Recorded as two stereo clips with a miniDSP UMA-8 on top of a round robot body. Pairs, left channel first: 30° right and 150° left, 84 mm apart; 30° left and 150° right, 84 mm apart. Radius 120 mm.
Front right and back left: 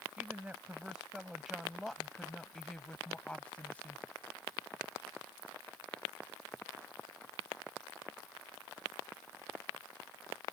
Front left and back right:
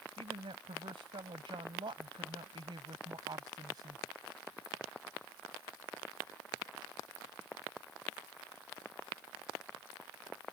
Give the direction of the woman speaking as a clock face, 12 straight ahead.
5 o'clock.